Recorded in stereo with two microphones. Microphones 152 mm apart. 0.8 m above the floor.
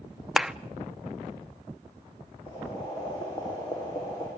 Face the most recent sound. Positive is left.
turn(degrees=30)  # may be behind; listen again after turning